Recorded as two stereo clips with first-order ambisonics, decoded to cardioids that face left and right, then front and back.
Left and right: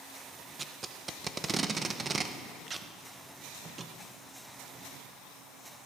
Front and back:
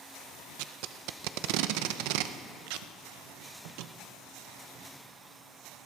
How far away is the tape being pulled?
About 0.6 m.